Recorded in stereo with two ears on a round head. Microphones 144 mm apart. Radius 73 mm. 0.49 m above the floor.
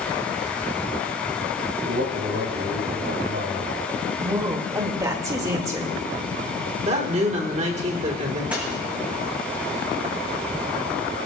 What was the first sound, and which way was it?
A man speaking, 75° right (ahead or behind).